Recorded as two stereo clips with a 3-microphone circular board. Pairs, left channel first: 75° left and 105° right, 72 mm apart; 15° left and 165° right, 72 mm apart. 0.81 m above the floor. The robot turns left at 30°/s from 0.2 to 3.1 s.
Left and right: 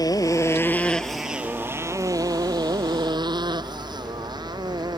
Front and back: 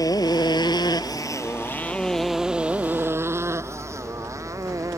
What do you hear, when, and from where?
0.0 s a motorcycle: 45° left; by 5.0 s 120° right